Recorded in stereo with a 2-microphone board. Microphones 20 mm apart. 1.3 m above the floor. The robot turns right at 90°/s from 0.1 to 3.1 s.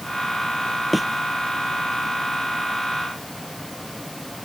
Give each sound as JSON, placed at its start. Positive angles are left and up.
{"t": 0.9, "sound": "a thud", "side_deg": 0}